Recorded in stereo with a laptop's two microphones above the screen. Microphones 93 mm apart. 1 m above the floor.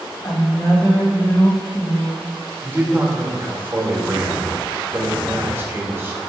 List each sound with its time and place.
0.2 s a woman speaking: 40° left (ahead or behind), 1.6 m
2.6 s a man speaking: 25° right (ahead or behind), 1.1 m